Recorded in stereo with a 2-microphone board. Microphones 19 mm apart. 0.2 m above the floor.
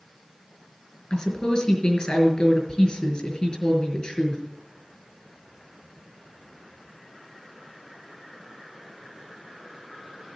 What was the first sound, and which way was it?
A woman speaking, 55° left (ahead or behind).